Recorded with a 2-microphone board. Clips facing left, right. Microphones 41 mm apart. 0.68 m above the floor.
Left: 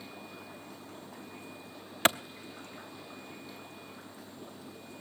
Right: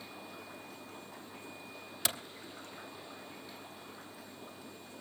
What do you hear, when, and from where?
2.0 s a clap: 45° left (ahead or behind), 0.7 m